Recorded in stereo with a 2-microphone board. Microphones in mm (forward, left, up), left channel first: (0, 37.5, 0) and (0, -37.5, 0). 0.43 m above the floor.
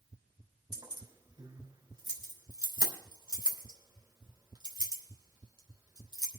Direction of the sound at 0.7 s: 60° right (ahead or behind).